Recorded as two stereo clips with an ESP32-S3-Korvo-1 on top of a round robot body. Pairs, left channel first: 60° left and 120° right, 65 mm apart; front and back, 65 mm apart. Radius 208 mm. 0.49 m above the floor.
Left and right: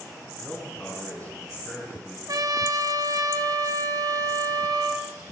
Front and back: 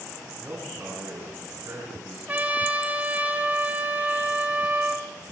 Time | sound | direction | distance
0.4 | a man speaking | 125° left | 8 m
2.3 | a trumpet | 115° right | 2 m